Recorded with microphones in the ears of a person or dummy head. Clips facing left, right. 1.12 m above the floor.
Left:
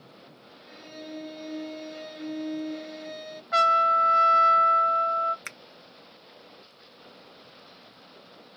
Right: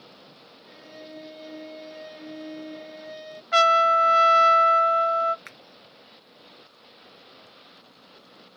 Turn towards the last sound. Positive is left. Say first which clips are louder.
# left 1 dB
turn(degrees=40)  # may be behind; listen again after turning